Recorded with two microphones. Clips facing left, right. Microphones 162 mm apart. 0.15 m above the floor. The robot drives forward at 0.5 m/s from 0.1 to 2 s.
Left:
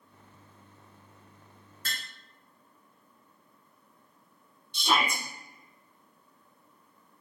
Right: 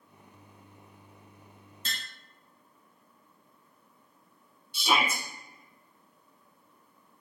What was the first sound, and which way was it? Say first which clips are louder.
Tapping: even; 25° right (ahead or behind).